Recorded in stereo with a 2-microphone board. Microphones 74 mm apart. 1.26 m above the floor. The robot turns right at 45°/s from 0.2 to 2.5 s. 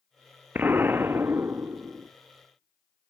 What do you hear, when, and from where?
0.6 s an explosion: 25° right (ahead or behind), 0.7 m; by 2.1 s 20° right (ahead or behind), 0.7 m